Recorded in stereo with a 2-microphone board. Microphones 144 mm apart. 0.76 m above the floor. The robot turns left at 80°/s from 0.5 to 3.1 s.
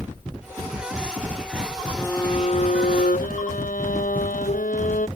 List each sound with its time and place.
2.0 s a violin: 175° left; by 5.1 s 85° left